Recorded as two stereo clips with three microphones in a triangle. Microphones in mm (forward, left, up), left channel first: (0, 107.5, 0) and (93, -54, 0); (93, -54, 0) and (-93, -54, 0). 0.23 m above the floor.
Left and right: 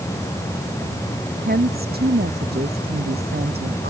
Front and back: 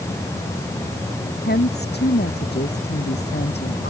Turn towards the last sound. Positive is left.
turn(degrees=-30)